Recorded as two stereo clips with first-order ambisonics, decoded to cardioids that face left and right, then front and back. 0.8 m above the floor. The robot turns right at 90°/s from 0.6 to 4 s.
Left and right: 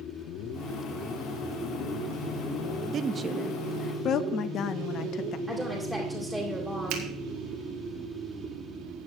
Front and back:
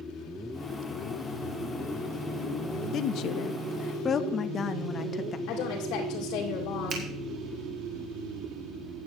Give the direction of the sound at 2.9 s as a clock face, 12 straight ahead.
1 o'clock.